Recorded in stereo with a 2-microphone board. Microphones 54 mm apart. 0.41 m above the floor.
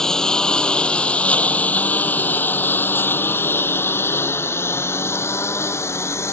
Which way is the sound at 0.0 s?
10° left (ahead or behind).